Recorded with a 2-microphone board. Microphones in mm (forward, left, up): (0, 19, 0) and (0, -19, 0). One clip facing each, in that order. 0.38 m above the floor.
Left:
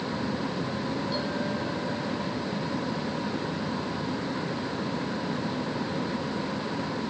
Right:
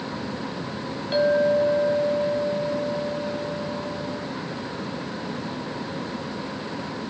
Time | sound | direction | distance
1.1 | a clink | 55° right (ahead or behind) | 2.0 m